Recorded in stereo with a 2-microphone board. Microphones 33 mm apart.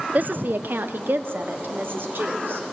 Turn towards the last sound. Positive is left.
turn(degrees=-90)